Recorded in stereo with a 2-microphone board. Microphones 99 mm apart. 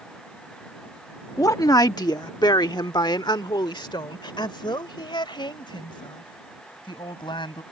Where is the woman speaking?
35° left (ahead or behind); by 7.6 s 55° left (ahead or behind).